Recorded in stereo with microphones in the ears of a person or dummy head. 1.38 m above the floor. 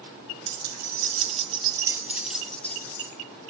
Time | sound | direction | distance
0.5 | keys jangling | 65° right (ahead or behind) | 1.5 m